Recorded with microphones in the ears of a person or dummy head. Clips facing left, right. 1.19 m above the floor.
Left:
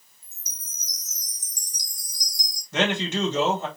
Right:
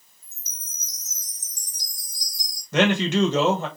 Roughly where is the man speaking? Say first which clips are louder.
Right 5 dB; right.